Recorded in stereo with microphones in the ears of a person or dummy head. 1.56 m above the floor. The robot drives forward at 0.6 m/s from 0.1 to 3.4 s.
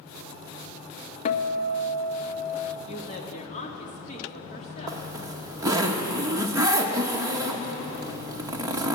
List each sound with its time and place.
1.2 s a guitar: 40° left (ahead or behind), 0.6 m; by 2.8 s 25° left (ahead or behind), 0.9 m
2.9 s a woman speaking: 45° left (ahead or behind), 1.5 m; by 5.1 s 35° left (ahead or behind), 1.8 m
4.9 s a zipper: 15° right (ahead or behind), 0.8 m